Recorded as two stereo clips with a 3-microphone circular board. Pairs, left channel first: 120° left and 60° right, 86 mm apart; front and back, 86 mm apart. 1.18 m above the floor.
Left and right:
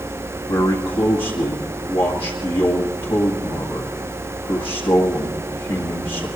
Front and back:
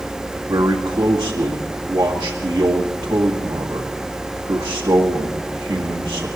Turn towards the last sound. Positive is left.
turn(degrees=135)